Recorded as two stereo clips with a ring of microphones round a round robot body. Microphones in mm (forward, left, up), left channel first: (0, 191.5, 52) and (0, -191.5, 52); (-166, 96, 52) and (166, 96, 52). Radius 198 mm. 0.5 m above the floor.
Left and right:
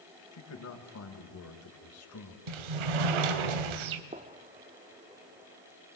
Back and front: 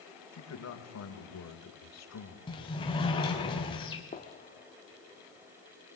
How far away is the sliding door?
About 1.3 m.